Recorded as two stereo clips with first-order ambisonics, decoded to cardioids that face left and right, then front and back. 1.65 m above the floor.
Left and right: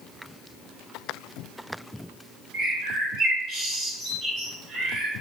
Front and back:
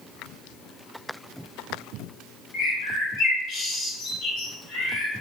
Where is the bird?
35° right, 1.2 m.